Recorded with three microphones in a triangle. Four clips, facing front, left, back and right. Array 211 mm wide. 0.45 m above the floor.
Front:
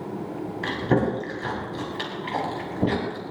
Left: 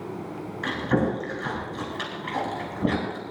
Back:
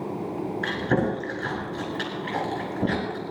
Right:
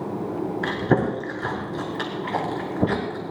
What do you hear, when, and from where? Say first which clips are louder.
0.6 s chewing: right 1 dB, front 2 dB; 75° right, 6 m